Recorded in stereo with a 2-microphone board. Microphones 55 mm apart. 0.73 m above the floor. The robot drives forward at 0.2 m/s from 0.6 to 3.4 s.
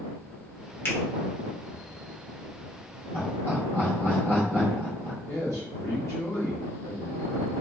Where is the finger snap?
45° left (ahead or behind), 1.1 m.